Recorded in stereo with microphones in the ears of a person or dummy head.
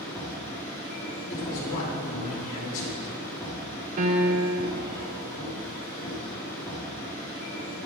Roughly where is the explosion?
No explosion in this recording.